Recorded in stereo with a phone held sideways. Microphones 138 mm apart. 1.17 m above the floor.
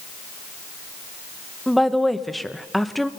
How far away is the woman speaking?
About 1.0 m.